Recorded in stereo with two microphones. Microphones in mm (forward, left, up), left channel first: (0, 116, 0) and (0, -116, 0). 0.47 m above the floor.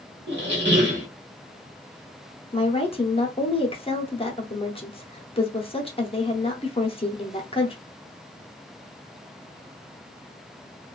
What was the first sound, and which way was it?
A squeak, 50° right (ahead or behind).